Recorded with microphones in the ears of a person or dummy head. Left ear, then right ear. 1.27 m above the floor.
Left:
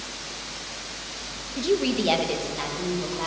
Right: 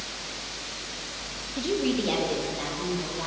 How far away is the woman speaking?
About 0.7 m.